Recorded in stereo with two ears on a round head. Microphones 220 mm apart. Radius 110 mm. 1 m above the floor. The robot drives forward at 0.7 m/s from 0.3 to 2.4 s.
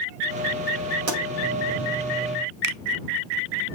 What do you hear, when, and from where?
1.1 s a pop: 75° right (ahead or behind), 6 m
2.6 s a finger snap: 85° right, 0.6 m